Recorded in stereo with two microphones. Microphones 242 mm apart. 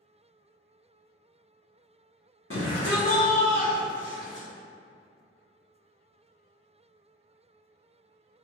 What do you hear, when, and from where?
2.5 s a shout: 55° left (ahead or behind), 0.7 m; by 4.5 s 30° left (ahead or behind), 1.2 m